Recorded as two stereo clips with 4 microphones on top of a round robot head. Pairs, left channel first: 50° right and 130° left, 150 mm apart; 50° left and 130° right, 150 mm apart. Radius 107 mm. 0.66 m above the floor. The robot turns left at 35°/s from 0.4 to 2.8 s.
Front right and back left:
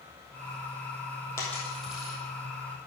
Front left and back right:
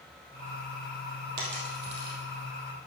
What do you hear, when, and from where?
1.4 s a dropped coin: 125° right, 2.5 m; by 2.2 s 155° right, 2.5 m